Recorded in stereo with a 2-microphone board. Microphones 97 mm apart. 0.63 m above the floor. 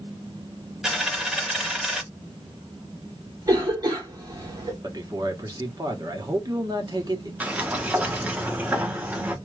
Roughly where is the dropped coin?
Centre.